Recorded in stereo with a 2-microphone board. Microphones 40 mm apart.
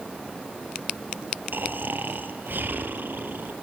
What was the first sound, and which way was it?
Snoring, 60° right (ahead or behind).